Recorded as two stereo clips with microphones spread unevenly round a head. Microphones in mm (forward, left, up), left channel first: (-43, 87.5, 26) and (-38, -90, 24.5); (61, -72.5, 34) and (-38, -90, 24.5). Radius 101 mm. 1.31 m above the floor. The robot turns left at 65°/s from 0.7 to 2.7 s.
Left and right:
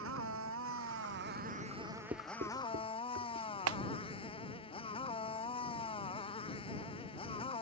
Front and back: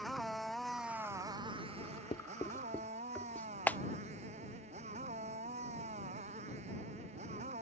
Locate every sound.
0.0 s a motorcycle: 80° right; by 7.6 s 150° left
1.8 s writing: straight ahead; by 3.5 s 60° right
3.7 s a clap: 65° right